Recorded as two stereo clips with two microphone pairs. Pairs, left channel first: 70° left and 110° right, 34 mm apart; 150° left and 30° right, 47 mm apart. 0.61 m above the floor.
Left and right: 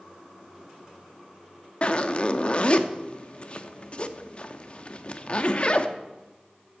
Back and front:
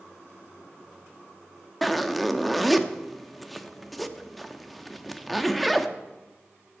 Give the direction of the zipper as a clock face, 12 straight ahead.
10 o'clock.